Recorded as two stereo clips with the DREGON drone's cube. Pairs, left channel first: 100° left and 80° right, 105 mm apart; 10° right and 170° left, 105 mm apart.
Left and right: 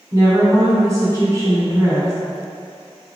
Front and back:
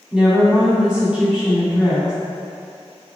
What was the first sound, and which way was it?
A woman speaking, 110° right.